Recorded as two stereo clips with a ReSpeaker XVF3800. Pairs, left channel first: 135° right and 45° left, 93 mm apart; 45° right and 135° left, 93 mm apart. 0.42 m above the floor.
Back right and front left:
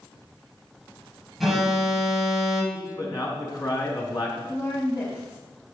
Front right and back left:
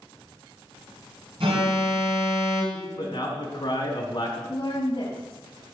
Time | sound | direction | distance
1.4 | an alarm | 135° left | 4 m
2.7 | a man speaking | 90° right | 4 m
4.5 | a woman speaking | 90° right | 3 m